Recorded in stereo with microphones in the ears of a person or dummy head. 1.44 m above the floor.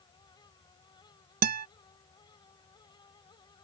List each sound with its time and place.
0.0 s a fan: 20° left (ahead or behind)
1.4 s a guitar: 45° right (ahead or behind)